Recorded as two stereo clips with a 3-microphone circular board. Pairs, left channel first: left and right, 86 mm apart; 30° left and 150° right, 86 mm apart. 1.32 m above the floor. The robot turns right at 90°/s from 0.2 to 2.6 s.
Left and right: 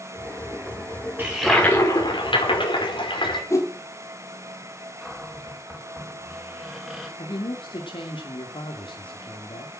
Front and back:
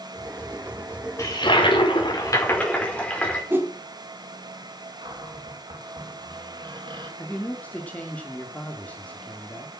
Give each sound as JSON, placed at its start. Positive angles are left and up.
{"t": 1.2, "sound": "a toilet flushing", "azimuth_deg": -20, "distance_m": 5.0}
{"t": 3.5, "sound": "a whoosh", "azimuth_deg": 145, "distance_m": 2.5}
{"t": 5.0, "sound": "a cupboard door", "azimuth_deg": -175, "distance_m": 5.5}
{"t": 7.2, "sound": "a man speaking", "azimuth_deg": 105, "distance_m": 2.5}